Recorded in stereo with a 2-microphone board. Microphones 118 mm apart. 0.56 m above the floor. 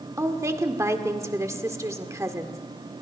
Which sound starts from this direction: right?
A woman speaking, at 0.2 s.